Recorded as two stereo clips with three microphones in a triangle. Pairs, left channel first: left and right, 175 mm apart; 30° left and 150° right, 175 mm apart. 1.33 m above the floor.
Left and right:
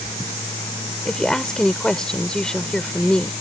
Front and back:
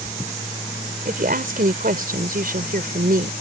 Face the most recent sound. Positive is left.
turn(degrees=175)